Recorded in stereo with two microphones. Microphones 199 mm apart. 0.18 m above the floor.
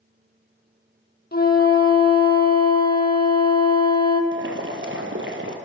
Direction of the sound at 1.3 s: 50° left (ahead or behind).